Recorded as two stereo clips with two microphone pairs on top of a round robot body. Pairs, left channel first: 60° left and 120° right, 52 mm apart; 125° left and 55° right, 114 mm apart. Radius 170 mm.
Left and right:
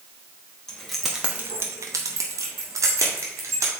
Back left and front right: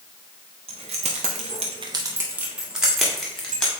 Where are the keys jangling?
20° right, 1.1 m; by 3.7 s 150° right, 2 m.